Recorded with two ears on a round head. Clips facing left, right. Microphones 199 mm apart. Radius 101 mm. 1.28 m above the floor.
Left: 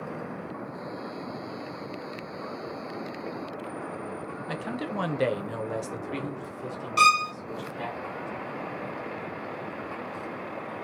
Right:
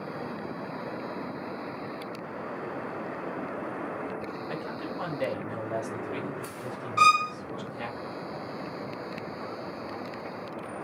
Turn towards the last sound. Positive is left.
turn(degrees=40)  # may be behind; listen again after turning